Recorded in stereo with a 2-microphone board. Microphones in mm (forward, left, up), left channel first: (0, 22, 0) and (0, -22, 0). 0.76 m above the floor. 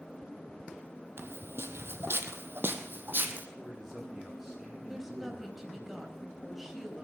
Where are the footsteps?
60° right (ahead or behind), 1.5 m; by 3.5 s 45° right (ahead or behind), 1.9 m.